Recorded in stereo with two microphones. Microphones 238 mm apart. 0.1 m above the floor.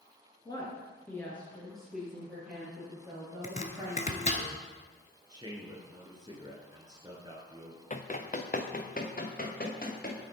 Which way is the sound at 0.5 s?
20° left (ahead or behind).